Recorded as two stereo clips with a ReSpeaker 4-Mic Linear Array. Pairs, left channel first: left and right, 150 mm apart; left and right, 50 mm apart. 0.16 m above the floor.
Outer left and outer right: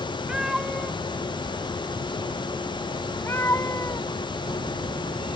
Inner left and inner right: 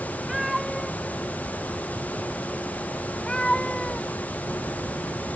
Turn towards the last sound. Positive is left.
turn(degrees=20)  # may be behind; listen again after turning